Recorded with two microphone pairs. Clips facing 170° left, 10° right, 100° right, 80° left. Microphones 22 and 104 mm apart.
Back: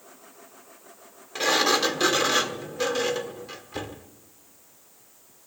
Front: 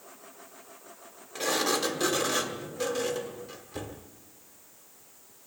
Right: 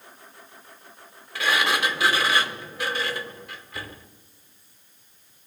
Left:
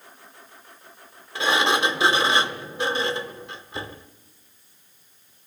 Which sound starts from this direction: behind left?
A sliding door, at 1.4 s.